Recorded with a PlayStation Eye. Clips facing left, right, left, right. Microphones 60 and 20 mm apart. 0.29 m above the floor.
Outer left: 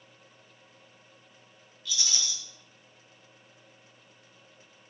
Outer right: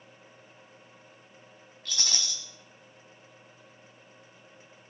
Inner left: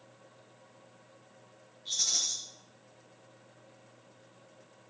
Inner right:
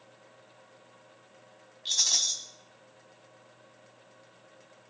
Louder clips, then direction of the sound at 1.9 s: Even, inner right 4 dB; 55° right (ahead or behind).